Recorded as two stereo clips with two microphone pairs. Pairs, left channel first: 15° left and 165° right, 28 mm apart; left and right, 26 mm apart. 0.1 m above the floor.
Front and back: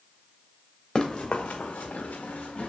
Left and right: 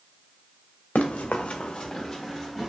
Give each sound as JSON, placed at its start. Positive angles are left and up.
{"t": 0.9, "sound": "running footsteps", "azimuth_deg": 85, "distance_m": 0.8}